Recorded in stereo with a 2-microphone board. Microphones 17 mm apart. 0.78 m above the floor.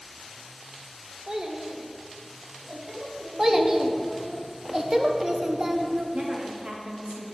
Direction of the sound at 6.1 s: 65° right (ahead or behind).